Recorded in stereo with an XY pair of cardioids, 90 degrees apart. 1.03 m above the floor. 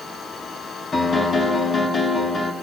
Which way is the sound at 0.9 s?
40° left.